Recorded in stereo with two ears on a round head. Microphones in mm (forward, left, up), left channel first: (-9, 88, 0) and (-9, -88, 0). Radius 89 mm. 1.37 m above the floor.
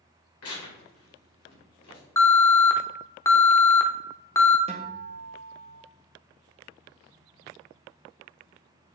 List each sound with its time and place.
0.4 s tearing paper: 85° left, 2.5 m
2.2 s an alarm: 15° left (ahead or behind), 0.6 m
4.7 s a guitar: 30° right (ahead or behind), 1.1 m